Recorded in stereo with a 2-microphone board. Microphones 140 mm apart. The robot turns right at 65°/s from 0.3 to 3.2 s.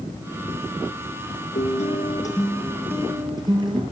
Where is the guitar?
105° left, 5.5 m; by 3.8 s 145° right, 5.5 m.